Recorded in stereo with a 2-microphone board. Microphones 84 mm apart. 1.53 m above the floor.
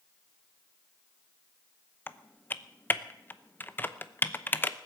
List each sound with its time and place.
2.1 s typing on a keyboard: 25° left (ahead or behind), 0.7 m